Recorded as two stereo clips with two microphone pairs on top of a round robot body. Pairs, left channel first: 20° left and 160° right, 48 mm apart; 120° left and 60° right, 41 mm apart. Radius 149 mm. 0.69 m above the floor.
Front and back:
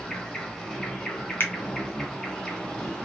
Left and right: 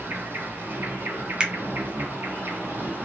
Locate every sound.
0.0 s an insect: 40° right, 1.4 m
1.4 s a finger snap: 15° left, 1.3 m